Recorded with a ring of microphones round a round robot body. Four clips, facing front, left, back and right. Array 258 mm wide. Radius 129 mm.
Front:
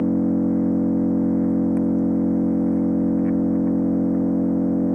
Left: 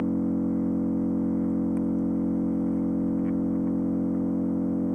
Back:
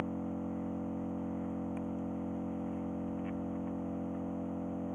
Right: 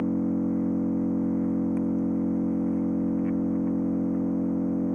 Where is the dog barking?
I don't hear a dog barking.